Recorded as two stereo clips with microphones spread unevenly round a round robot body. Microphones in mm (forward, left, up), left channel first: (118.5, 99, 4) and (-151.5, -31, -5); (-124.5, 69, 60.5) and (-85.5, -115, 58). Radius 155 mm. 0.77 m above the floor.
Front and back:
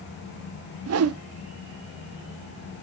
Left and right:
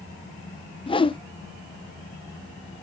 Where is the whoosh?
165° left, 0.7 m.